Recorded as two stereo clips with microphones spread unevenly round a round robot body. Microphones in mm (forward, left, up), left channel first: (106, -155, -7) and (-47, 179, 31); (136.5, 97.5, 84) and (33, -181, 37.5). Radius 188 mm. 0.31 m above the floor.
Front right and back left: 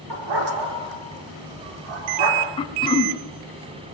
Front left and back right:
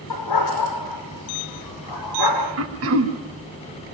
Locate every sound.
0.1 s a dog barking: 90° left, 4.5 m
2.6 s throat clearing: 140° right, 1.6 m